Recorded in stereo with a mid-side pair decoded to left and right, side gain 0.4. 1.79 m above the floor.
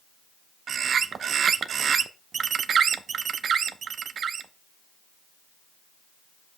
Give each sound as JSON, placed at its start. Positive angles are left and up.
{"t": 0.7, "sound": "a bird", "azimuth_deg": -55, "distance_m": 0.6}